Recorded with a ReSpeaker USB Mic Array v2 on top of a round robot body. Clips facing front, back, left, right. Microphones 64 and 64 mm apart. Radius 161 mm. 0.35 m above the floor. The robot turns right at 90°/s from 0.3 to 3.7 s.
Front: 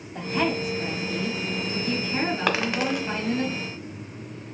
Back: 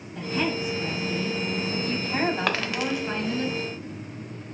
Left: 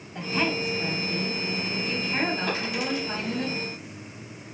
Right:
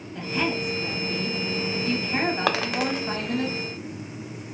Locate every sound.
0.1 s a woman speaking: 20° left, 1.9 m; by 3.5 s 55° right, 1.9 m
2.5 s a dropped coin: 90° right, 0.6 m; by 3.1 s 35° right, 0.6 m